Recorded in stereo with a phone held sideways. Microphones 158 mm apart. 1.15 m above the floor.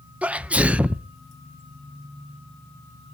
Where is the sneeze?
10° right (ahead or behind), 0.6 m.